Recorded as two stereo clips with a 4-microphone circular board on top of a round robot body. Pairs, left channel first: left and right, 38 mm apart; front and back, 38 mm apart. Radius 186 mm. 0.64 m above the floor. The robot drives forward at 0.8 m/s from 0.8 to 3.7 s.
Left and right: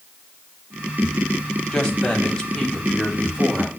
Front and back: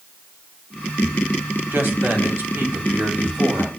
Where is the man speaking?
160° left, 2 m; by 3.7 s 170° left, 3.5 m.